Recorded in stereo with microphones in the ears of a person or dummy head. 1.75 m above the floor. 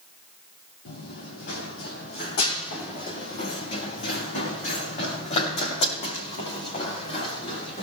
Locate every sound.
0.8 s running footsteps: 55° left (ahead or behind), 4 m; by 7.8 s 40° left (ahead or behind), 8.5 m